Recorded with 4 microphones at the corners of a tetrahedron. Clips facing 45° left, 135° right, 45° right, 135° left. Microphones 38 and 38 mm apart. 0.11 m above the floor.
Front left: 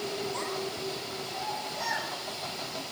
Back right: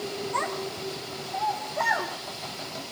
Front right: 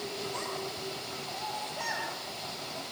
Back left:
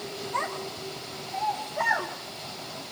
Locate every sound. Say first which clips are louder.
0.3 s a child speaking: back right 4 dB, back left 5 dB; 170° right, 5.5 m; by 2.1 s 175° right, 3 m